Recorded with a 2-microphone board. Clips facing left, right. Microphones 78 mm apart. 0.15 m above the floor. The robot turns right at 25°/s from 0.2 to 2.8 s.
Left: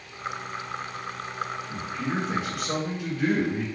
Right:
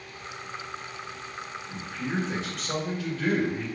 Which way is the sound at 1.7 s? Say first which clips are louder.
Left 3 dB; 5° right (ahead or behind).